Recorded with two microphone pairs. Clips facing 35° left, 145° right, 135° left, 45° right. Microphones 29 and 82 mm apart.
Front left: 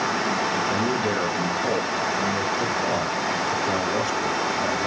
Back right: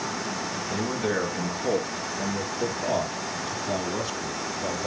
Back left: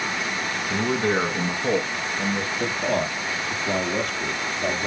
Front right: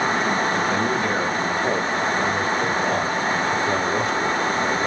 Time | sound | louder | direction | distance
0.7 | a man speaking | front left 4 dB, front right 1 dB | 90° left | 1.7 m